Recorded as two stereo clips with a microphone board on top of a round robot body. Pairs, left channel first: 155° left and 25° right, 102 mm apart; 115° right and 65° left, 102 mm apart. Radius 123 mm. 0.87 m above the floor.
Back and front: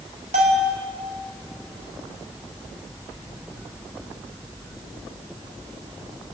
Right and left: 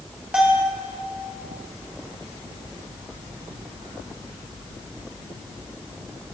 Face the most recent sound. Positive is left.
turn(degrees=-10)